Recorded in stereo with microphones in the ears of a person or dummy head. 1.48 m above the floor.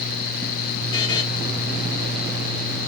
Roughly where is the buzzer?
Left.